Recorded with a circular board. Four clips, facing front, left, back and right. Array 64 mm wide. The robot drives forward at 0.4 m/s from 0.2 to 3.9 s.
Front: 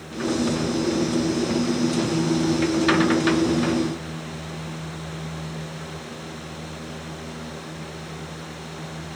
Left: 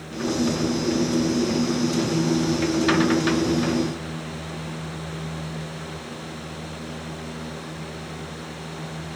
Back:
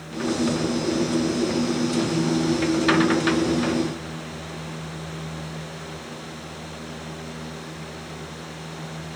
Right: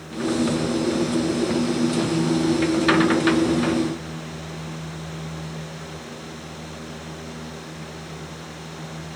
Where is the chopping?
I don't hear chopping.